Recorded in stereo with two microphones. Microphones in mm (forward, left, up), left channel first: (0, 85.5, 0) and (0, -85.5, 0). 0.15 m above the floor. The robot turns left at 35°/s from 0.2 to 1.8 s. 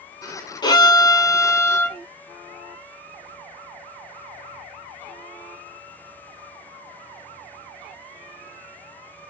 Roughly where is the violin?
Left.